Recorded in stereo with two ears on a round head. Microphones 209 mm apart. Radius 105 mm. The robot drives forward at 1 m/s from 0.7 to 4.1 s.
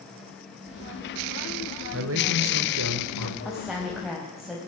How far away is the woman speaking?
About 3 m.